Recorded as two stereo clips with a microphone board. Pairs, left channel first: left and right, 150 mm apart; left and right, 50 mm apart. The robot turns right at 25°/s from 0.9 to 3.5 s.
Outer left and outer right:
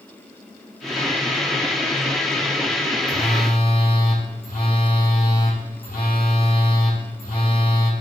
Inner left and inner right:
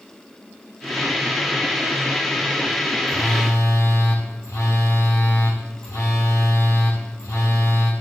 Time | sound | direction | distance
3.1 | a phone buzzing | 85° left | 2.5 m